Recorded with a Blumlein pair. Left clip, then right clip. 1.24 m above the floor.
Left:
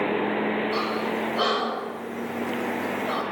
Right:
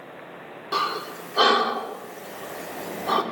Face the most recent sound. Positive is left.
turn(degrees=-55)